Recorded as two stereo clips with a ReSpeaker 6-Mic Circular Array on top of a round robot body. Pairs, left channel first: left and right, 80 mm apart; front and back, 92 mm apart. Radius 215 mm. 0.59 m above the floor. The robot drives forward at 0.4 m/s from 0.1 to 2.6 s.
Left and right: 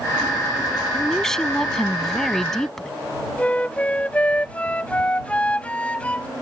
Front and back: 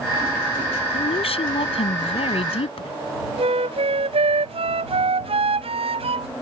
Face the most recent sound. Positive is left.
turn(degrees=165)